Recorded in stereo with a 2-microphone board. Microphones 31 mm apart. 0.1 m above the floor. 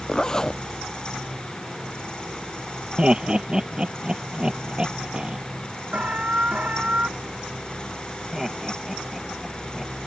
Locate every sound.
0.1 s a zipper: 20° left (ahead or behind)
3.0 s laughter: 30° right (ahead or behind)
5.9 s an alarm: 50° right (ahead or behind)
8.3 s laughter: 5° right (ahead or behind)